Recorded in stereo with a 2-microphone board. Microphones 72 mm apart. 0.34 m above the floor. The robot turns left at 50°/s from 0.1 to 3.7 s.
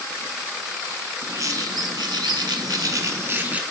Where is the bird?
40° right, 0.8 m; by 3.6 s 160° right, 0.8 m.